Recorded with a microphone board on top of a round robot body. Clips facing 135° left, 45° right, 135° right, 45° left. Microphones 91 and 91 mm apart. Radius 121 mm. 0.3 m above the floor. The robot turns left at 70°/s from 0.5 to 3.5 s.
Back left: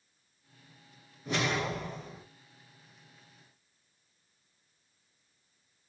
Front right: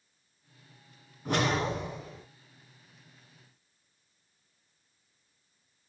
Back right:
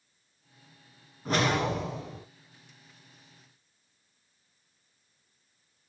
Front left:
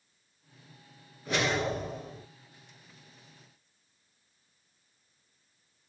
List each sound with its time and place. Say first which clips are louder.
1.2 s a whoosh: front right 3 dB, back right 2 dB; 80° right, 2 m; by 2.2 s 150° right, 2 m